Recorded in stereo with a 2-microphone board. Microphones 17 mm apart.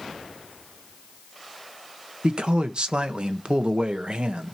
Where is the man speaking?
65° right (ahead or behind), 1.5 m.